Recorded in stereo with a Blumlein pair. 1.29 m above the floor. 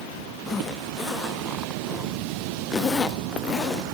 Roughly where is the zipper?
Ahead.